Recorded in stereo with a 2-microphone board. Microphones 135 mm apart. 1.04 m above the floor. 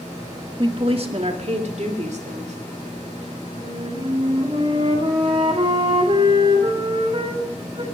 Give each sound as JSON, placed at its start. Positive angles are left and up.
{"t": 0.6, "sound": "a woman speaking", "side_deg": -35, "distance_m": 1.2}
{"t": 3.6, "sound": "a flute", "side_deg": -40, "distance_m": 2.5}